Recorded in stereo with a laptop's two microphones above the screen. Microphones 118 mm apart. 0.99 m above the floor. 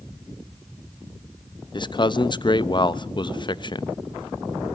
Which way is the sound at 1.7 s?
40° left (ahead or behind).